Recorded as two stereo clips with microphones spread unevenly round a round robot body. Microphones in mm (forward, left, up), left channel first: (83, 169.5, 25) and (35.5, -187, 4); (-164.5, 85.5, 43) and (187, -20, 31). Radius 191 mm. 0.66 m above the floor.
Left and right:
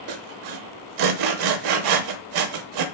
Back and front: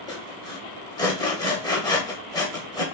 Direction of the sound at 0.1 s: 120° right.